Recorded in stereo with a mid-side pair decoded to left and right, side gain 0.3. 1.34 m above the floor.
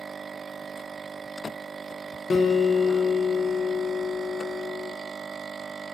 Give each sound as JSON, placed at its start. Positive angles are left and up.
{"t": 2.3, "sound": "a guitar", "azimuth_deg": 45, "distance_m": 0.6}